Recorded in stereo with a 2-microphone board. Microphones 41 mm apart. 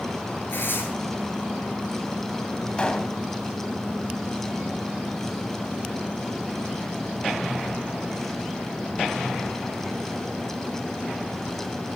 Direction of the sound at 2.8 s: 25° left (ahead or behind).